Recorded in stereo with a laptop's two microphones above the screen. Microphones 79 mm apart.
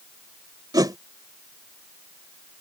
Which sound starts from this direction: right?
A whoosh, at 0.7 s.